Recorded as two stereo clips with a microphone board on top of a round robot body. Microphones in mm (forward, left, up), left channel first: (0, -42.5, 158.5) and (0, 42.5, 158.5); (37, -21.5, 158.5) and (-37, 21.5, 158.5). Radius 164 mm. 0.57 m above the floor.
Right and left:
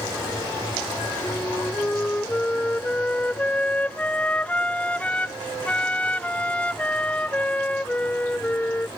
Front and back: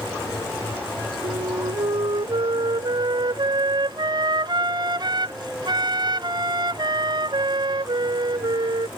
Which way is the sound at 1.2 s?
170° right.